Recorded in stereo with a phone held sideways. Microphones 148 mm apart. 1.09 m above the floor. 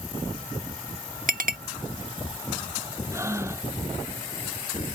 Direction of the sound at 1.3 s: 65° right (ahead or behind).